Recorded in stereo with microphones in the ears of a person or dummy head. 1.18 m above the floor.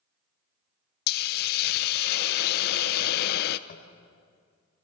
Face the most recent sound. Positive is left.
turn(degrees=50)  # may be behind; listen again after turning